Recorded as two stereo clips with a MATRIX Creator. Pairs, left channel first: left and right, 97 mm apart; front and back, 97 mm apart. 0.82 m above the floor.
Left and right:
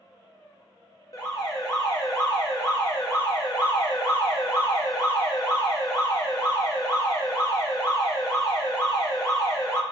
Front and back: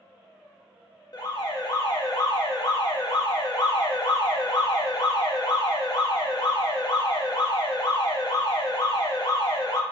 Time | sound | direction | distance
1.1 | an alarm | 40° left | 0.6 m